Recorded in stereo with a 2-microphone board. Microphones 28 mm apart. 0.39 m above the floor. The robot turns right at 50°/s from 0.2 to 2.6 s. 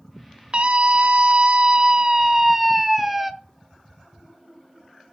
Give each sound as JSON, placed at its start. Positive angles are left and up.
{"t": 0.5, "sound": "a scream", "azimuth_deg": -115, "distance_m": 1.1}